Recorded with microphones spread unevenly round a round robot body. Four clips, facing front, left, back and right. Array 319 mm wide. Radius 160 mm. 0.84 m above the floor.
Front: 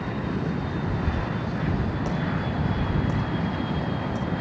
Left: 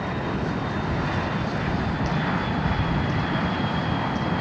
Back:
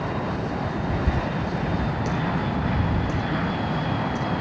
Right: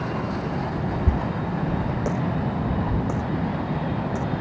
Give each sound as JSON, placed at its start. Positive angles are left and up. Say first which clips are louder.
{"t": 1.1, "sound": "a dropped coin", "louder": "even, back 3 dB", "azimuth_deg": -110}